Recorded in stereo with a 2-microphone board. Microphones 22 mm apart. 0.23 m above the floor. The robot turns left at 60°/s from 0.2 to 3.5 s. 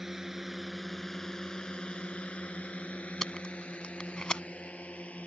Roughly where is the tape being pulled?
Left.